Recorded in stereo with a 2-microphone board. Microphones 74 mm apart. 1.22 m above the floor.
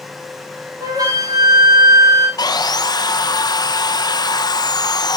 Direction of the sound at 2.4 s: 65° left (ahead or behind).